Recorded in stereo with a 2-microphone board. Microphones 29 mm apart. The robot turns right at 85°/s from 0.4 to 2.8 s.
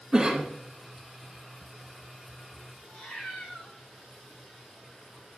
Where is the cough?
30° right (ahead or behind), 1.5 m; by 0.5 s 35° right (ahead or behind), 1.5 m.